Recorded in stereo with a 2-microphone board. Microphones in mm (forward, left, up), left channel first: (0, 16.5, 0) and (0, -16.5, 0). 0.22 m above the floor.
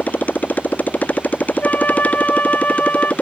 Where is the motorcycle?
60° left (ahead or behind); by 3.2 s 45° left (ahead or behind).